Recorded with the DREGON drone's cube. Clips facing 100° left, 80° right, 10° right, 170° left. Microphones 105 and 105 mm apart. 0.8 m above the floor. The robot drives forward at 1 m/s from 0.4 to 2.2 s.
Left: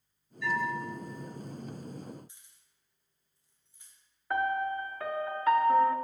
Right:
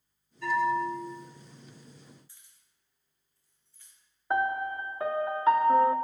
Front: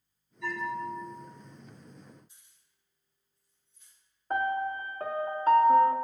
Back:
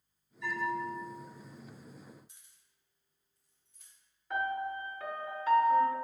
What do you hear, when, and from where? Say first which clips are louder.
0.4 s a bell: right 6 dB, front 1 dB; 35° right, 2.5 m; by 1.1 s 50° right, 2 m
2.3 s keys jangling: left 1 dB, back 1 dB; 170° left, 1.9 m
4.3 s a piano: right 1 dB, front 5 dB; 20° right, 0.5 m